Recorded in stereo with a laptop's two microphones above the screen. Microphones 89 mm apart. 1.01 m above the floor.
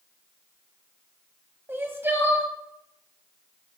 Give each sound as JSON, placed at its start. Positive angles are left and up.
{"t": 1.7, "sound": "crying", "side_deg": -25, "distance_m": 1.4}